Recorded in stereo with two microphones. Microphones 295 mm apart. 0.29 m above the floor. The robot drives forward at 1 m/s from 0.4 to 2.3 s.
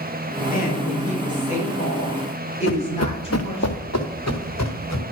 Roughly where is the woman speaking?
Left.